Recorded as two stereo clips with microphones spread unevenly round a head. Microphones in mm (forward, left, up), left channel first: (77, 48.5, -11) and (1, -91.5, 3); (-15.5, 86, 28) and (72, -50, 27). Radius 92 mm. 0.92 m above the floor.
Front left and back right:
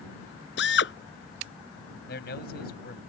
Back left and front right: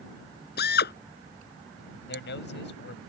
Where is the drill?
100° left.